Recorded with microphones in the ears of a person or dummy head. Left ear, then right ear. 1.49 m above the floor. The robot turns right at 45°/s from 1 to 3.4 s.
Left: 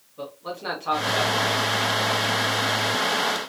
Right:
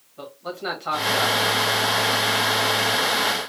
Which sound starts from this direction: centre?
A man speaking, at 0.2 s.